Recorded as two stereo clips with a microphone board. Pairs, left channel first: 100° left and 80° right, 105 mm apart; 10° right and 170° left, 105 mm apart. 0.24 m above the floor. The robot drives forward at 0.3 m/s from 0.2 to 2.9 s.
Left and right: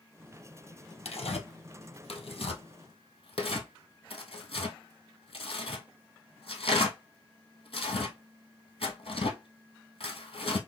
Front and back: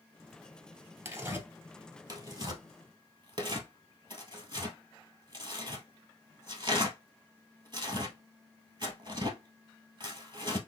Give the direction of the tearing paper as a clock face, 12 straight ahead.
8 o'clock.